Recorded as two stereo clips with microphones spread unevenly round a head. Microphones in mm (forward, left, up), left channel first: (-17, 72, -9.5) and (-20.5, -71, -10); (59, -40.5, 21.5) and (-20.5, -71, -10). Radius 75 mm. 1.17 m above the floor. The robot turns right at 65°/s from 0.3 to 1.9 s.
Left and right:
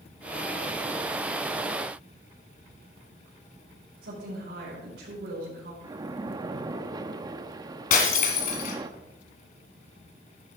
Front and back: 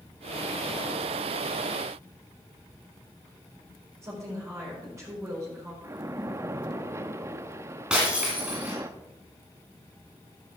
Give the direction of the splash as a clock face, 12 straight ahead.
3 o'clock.